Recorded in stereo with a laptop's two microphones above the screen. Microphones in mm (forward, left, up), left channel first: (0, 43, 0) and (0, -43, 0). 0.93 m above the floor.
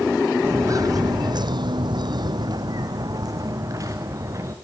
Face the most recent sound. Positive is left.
turn(degrees=-35)  # may be behind; listen again after turning